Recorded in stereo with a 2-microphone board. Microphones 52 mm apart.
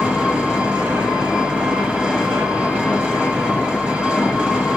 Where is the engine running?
15° right (ahead or behind), 3 m.